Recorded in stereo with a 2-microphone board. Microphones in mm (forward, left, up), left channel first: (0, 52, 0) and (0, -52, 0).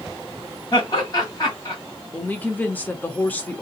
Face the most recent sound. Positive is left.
turn(degrees=15)  # may be behind; listen again after turning